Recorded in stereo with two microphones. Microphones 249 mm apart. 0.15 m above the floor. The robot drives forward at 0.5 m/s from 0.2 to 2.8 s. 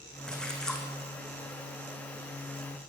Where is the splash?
5° left (ahead or behind), 3 m.